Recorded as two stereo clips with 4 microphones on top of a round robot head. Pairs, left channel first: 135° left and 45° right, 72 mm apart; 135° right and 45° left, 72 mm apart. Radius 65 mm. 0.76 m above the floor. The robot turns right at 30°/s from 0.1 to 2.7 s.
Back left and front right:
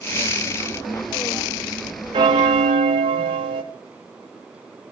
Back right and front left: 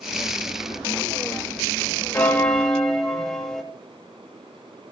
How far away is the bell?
About 0.6 m.